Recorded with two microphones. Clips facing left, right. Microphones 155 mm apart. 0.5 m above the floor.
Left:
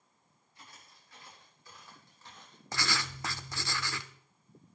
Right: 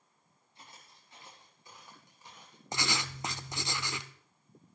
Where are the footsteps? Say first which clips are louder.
Right 1 dB; 25° right (ahead or behind), 8.5 m; by 2.6 s 10° right (ahead or behind), 7 m.